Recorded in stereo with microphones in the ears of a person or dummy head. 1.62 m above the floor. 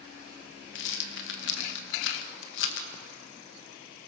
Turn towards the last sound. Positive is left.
turn(degrees=65)  # may be behind; listen again after turning